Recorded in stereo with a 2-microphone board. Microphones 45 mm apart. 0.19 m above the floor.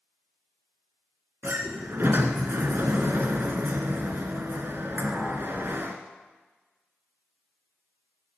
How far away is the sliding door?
About 1.8 m.